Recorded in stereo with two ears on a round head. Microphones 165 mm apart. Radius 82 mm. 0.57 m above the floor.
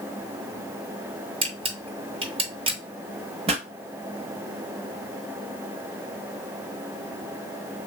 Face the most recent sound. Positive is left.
turn(degrees=-30)  # may be behind; listen again after turning